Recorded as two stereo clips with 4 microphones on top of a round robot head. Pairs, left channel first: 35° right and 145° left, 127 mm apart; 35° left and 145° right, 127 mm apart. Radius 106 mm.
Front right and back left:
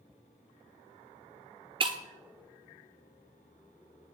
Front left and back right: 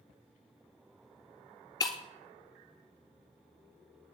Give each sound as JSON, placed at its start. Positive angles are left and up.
{"t": 1.8, "sound": "breaking glass", "azimuth_deg": 95, "distance_m": 0.7}